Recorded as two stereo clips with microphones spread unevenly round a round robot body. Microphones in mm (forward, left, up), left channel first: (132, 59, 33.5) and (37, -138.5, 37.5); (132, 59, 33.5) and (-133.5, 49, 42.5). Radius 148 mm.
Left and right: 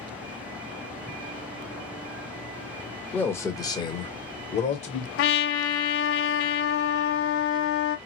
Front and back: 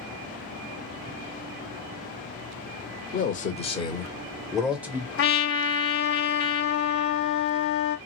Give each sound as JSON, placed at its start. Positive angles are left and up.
{"t": 3.1, "sound": "a man speaking", "azimuth_deg": -10, "distance_m": 0.9}
{"t": 5.2, "sound": "a trumpet", "azimuth_deg": 45, "distance_m": 1.0}